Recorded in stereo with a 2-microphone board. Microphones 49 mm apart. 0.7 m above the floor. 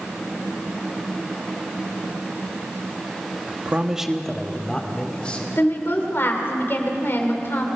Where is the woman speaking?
50° left (ahead or behind), 3 m.